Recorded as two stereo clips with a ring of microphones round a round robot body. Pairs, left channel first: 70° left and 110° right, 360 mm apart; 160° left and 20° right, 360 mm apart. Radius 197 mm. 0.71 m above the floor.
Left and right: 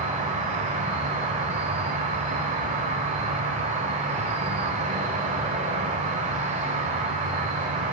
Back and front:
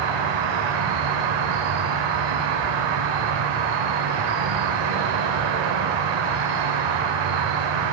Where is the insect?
40° right, 0.8 m.